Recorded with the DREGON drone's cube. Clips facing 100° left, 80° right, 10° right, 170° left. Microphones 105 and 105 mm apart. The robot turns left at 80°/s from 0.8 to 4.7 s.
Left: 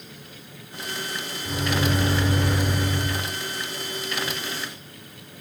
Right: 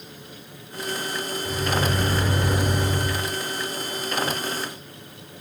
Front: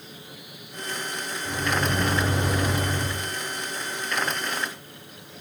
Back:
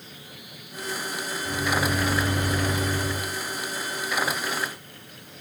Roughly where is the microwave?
Ahead left.